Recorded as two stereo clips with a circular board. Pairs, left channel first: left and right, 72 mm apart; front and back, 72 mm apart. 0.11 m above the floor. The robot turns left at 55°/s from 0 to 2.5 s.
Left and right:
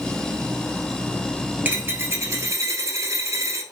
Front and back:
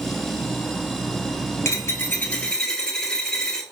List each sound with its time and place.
1.6 s a dropped coin: 30° right, 1.0 m; by 3.6 s 75° right, 1.0 m